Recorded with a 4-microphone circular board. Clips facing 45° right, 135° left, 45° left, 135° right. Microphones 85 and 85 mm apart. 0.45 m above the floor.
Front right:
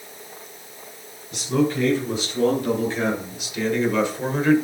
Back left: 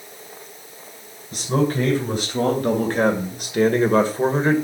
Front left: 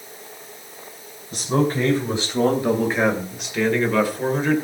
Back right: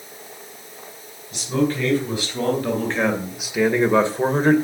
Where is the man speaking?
95° left, 3.5 m; by 4.5 s 170° right, 2 m.